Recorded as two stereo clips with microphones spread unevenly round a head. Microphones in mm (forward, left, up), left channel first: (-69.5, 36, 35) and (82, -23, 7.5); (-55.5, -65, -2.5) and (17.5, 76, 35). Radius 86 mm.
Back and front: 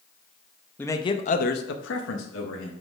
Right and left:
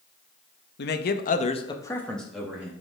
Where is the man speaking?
120° right, 0.8 m; by 2.7 s 145° left, 1.2 m.